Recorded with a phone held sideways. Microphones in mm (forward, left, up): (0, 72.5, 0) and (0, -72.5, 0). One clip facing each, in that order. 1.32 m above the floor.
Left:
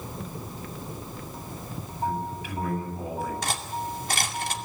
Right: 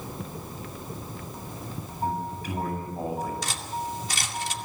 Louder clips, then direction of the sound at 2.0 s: Even; 40° right (ahead or behind).